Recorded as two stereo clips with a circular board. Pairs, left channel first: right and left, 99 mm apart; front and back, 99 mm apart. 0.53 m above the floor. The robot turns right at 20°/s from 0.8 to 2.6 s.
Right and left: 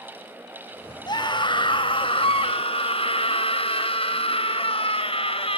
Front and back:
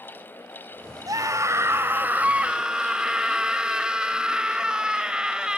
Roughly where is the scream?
Behind right.